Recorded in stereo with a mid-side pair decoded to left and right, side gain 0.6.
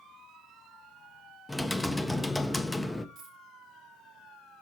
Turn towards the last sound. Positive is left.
turn(degrees=-70)